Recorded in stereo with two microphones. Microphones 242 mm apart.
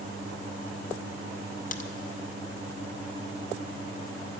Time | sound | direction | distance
1.7 | a crack | 35° left (ahead or behind) | 0.5 m